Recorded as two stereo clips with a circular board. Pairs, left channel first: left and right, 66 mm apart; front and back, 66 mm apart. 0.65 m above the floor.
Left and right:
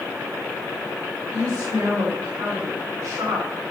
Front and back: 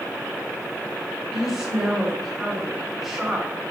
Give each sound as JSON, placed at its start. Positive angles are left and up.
{"t": 1.3, "sound": "a woman speaking", "azimuth_deg": -100, "distance_m": 2.0}